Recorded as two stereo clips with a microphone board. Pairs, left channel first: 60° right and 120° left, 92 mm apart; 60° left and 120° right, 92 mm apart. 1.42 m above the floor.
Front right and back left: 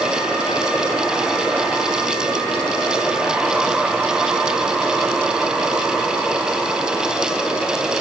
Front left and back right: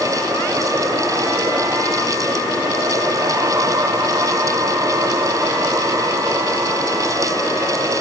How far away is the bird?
No bird in this recording.